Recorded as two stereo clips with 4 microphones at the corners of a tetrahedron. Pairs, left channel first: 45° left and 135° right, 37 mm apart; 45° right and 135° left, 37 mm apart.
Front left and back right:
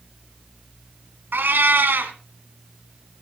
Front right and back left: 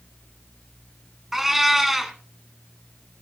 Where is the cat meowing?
145° right, 1.4 m.